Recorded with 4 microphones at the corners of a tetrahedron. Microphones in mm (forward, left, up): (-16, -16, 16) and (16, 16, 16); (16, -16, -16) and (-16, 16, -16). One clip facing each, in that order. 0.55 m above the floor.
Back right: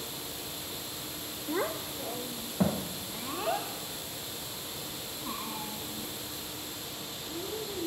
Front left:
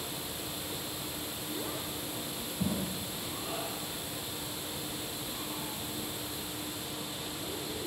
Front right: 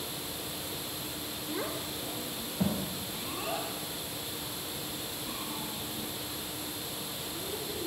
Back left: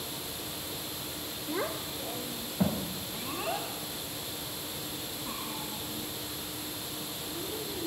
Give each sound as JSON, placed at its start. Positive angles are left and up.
{"t": 1.5, "sound": "a child speaking", "azimuth_deg": -155, "distance_m": 1.7}